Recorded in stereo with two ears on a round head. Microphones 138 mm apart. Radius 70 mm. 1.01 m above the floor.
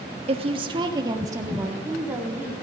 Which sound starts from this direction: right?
A woman speaking, at 0.3 s.